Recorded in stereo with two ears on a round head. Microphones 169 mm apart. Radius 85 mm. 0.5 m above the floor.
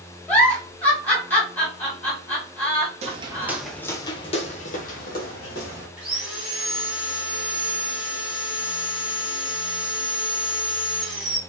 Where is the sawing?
5° right (ahead or behind), 1.2 m.